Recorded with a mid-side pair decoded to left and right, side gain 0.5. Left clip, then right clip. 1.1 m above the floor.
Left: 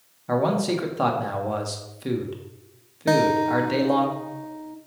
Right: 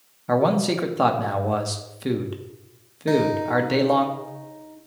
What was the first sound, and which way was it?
A man speaking, 20° right.